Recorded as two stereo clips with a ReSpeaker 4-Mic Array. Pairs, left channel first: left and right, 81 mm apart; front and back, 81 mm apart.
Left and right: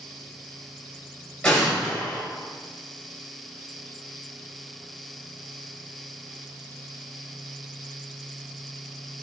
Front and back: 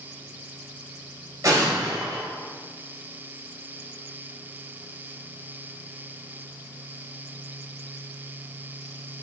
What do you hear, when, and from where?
1.4 s an explosion: 170° left, 1.7 m